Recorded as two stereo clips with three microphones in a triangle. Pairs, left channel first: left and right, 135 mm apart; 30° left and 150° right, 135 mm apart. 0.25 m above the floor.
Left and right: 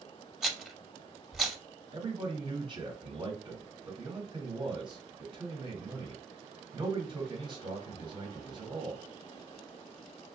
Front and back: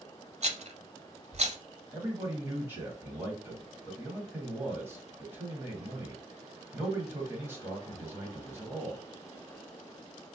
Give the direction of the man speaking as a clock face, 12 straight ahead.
3 o'clock.